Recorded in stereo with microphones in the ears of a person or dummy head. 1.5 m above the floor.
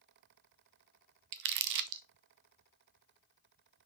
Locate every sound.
1.3 s crumpling: 55° right (ahead or behind), 0.6 m